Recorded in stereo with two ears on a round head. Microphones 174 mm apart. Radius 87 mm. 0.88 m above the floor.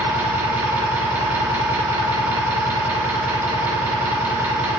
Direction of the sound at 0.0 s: 10° right (ahead or behind).